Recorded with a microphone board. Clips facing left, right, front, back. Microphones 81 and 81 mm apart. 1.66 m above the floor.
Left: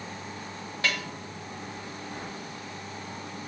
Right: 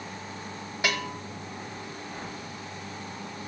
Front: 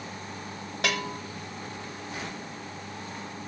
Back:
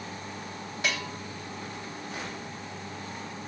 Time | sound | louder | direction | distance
0.8 | a bell | right 2 dB, front 3 dB | 15° right | 2 m